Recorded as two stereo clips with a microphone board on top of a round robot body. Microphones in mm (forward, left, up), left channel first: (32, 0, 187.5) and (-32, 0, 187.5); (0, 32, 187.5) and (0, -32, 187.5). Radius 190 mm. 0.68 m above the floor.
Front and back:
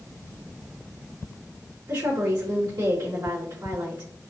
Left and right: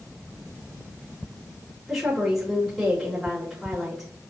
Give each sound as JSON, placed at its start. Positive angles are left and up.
{"t": 1.9, "sound": "a woman speaking", "azimuth_deg": 180, "distance_m": 2.0}